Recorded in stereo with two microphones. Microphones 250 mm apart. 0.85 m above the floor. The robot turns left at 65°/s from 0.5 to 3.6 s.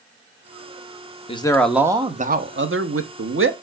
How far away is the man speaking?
About 0.7 m.